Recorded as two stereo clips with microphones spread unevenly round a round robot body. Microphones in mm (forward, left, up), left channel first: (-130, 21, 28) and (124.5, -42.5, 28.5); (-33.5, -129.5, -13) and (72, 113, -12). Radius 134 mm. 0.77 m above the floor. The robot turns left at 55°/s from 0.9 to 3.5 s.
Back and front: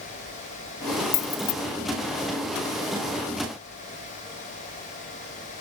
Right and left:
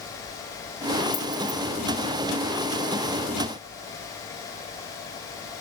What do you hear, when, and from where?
1.1 s keys jangling: 165° left, 0.5 m; by 1.5 s 140° left, 0.5 m